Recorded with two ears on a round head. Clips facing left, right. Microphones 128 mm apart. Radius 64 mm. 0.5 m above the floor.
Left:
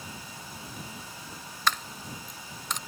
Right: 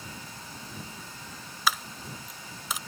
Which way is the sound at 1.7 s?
5° right (ahead or behind).